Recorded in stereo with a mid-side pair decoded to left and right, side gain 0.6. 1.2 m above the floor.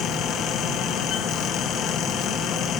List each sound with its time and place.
0.0 s a fan: 60° left, 1.2 m